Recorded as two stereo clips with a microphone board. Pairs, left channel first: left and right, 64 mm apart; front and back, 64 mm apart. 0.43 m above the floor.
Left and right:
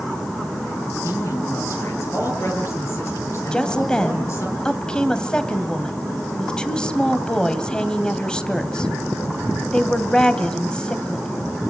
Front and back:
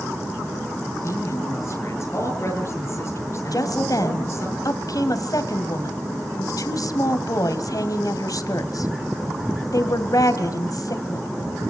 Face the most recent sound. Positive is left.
turn(degrees=15)